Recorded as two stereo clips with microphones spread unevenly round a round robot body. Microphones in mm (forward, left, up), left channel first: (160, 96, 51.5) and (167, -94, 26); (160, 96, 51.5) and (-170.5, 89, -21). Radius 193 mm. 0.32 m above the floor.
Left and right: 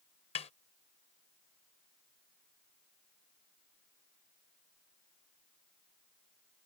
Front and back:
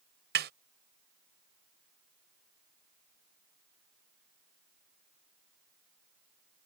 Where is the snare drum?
150° left.